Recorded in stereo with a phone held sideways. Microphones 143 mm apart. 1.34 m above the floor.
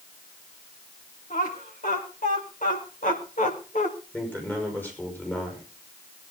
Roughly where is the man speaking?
Centre.